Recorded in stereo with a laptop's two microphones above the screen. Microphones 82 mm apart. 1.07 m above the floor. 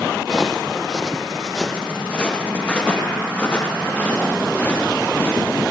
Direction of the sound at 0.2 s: 5° right (ahead or behind).